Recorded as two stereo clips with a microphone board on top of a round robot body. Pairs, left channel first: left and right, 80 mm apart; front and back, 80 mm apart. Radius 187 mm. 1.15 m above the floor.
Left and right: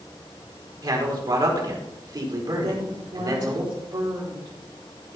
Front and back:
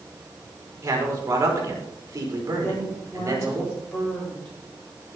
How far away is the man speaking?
About 4 m.